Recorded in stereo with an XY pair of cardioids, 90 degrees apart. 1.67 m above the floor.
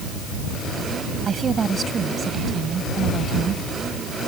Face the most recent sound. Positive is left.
turn(degrees=-50)